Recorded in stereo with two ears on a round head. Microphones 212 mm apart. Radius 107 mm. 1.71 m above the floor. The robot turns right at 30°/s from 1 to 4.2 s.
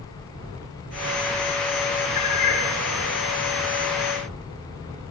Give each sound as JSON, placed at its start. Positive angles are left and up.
{"t": 2.1, "sound": "a cat meowing", "side_deg": 35, "distance_m": 8.5}